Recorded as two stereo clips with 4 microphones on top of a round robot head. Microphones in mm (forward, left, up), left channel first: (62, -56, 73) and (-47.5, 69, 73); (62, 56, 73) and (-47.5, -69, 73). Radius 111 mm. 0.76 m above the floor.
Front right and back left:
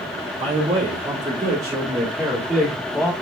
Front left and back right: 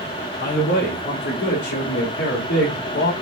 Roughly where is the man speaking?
Left.